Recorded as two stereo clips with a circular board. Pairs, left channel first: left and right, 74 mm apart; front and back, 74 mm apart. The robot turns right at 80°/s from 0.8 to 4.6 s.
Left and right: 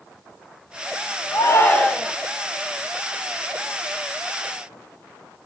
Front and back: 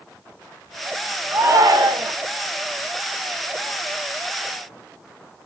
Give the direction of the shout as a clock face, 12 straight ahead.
8 o'clock.